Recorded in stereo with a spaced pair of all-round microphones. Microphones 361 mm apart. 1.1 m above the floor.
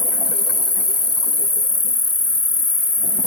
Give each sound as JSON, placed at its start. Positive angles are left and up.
{"t": 0.0, "sound": "an insect", "side_deg": 40}